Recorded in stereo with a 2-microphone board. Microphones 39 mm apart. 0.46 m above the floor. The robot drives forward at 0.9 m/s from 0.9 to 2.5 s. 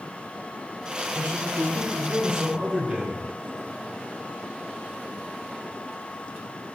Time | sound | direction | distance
1.1 | a man speaking | 40° right (ahead or behind) | 1.2 m